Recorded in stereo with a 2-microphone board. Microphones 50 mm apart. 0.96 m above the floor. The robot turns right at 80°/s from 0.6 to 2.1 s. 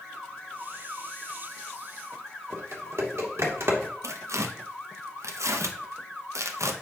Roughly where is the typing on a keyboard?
Right.